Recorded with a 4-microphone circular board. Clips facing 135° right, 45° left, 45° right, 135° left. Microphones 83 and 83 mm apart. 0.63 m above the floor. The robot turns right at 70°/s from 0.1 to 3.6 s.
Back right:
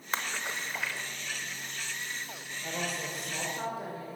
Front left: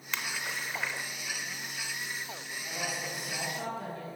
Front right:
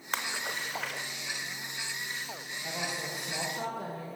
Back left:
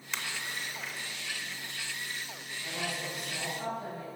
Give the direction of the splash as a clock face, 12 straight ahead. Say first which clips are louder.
Back right 2 dB, front right 4 dB; 3 o'clock.